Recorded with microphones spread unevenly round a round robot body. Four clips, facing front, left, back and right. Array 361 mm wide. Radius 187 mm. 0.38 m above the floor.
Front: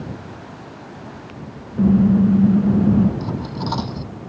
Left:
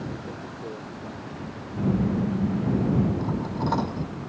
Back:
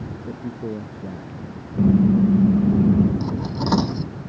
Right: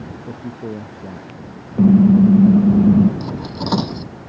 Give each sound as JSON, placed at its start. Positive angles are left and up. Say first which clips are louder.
{"t": 0.3, "sound": "a man speaking", "louder": "right 6 dB, back 7 dB", "azimuth_deg": -120}
{"t": 1.8, "sound": "a car horn", "louder": "right 14 dB, front 2 dB", "azimuth_deg": -60}
{"t": 3.2, "sound": "cutlery clinking", "louder": "right 2 dB, back 1 dB", "azimuth_deg": -125}